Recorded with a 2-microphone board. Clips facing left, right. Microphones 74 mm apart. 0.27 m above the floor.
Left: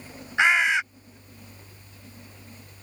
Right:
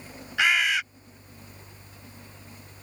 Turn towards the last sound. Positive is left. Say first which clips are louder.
# left 3 dB
turn(degrees=30)  # may be behind; listen again after turning